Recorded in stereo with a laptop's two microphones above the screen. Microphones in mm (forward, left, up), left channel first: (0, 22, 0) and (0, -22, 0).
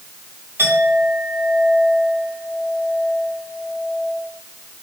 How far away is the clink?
About 3.5 m.